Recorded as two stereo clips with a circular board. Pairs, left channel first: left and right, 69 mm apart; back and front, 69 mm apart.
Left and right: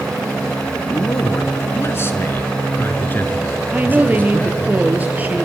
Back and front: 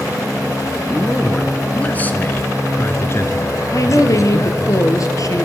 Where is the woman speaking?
155° right, 3.5 m.